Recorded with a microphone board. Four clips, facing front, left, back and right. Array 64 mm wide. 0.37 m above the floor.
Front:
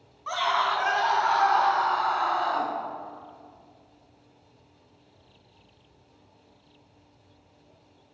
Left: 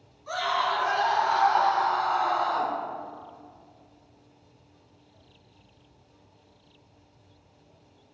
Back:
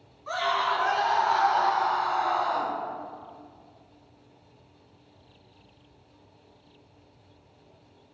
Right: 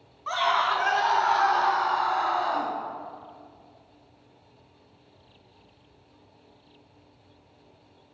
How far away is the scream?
About 3 m.